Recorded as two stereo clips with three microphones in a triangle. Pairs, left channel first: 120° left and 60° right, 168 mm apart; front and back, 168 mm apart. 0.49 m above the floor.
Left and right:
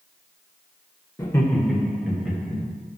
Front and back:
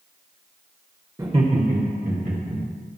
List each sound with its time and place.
1.2 s laughter: 150° left, 0.8 m; by 2.6 s 145° right, 2.5 m